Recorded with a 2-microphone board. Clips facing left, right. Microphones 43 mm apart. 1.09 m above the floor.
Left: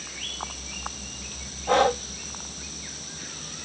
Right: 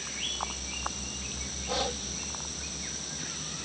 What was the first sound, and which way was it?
Breathing, 50° left (ahead or behind).